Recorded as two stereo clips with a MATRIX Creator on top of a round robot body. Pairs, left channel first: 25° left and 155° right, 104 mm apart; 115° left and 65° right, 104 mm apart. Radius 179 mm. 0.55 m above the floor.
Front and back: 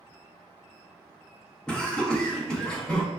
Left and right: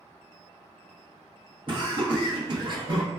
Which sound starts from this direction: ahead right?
Laughter, at 1.7 s.